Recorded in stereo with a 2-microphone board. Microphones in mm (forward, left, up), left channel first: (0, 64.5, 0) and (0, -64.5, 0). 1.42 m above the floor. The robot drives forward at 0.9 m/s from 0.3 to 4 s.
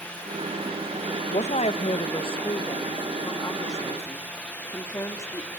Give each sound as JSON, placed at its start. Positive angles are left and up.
{"t": 1.3, "sound": "a woman speaking", "side_deg": 70, "distance_m": 1.5}